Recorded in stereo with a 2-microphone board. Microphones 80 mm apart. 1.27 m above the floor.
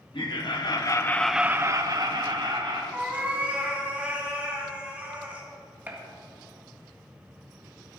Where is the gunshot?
20° right (ahead or behind), 1.7 m.